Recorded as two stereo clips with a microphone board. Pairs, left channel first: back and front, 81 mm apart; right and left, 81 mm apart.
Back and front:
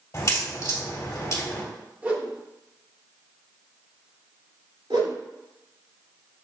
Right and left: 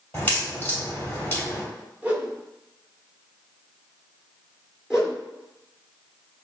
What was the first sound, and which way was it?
A crack, 150° right.